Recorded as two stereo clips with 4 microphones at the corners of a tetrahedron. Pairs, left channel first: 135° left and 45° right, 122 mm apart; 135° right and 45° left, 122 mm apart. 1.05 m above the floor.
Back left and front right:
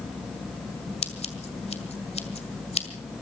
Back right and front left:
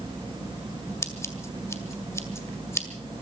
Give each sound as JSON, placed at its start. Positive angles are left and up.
{"t": 1.0, "sound": "scissors", "azimuth_deg": 160, "distance_m": 1.9}